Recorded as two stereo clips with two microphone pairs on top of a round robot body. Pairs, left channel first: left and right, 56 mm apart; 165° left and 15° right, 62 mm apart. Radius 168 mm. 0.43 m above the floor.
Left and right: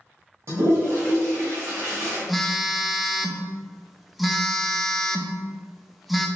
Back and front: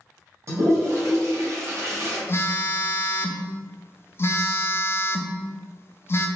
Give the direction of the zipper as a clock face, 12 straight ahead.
No zipper in this recording.